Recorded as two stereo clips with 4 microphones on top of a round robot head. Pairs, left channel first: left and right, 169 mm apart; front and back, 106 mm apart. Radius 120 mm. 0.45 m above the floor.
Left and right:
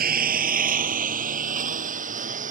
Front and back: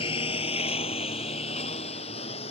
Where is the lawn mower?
55° right; by 2.5 s 45° right.